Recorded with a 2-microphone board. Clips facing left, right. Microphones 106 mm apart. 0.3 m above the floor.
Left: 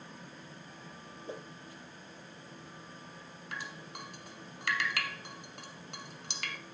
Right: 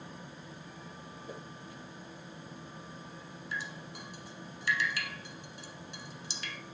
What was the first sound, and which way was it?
A whoosh, 25° left (ahead or behind).